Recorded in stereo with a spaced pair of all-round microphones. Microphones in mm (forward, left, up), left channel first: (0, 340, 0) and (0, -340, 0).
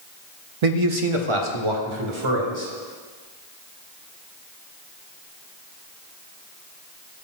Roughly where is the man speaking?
Right.